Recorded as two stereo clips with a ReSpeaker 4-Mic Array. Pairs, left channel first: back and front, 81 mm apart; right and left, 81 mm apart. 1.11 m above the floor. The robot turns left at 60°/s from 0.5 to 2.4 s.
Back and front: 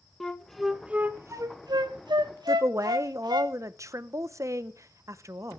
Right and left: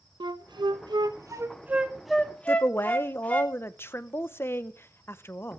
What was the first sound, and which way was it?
A flute, 95° left.